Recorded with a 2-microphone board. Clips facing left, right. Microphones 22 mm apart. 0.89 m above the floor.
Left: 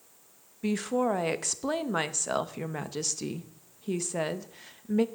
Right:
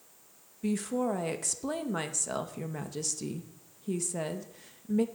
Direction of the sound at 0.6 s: 20° left (ahead or behind).